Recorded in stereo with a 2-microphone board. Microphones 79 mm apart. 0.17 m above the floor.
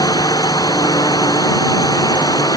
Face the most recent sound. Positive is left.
turn(degrees=55)  # may be behind; listen again after turning